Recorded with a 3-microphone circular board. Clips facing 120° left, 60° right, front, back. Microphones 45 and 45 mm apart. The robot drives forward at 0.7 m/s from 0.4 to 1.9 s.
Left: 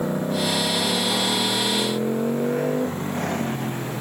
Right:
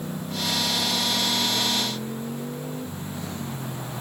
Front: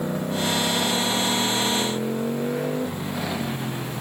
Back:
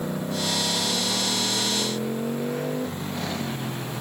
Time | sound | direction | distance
0.0 | a motorcycle | 80° left | ?